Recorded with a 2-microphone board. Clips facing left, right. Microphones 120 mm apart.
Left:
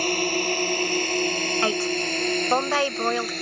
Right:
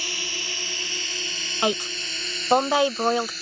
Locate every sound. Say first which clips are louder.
0.0 s a drone: left 13 dB; 50° left (ahead or behind); by 3.4 s 60° left (ahead or behind)
1.6 s a woman speaking: right 2 dB; 15° right (ahead or behind)